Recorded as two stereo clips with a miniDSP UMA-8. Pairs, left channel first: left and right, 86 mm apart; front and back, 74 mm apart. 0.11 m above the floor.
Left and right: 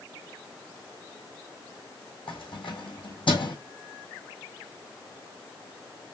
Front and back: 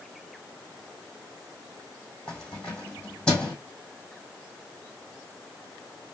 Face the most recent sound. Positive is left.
turn(degrees=80)